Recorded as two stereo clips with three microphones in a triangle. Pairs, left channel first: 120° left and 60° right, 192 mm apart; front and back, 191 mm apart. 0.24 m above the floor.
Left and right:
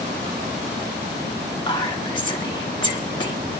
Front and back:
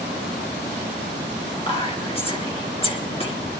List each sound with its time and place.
1.7 s whispering: 55° left, 3 m